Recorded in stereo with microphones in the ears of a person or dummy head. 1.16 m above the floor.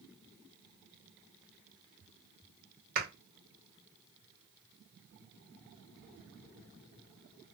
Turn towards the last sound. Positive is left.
turn(degrees=-50)  # may be behind; listen again after turning